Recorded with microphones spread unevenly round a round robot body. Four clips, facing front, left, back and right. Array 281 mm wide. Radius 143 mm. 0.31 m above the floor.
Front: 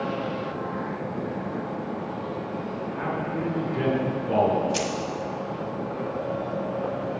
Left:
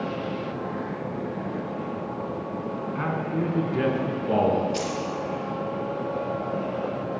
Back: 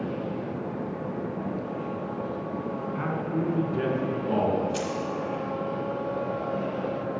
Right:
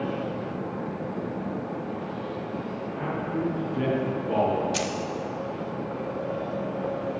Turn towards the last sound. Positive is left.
turn(degrees=-65)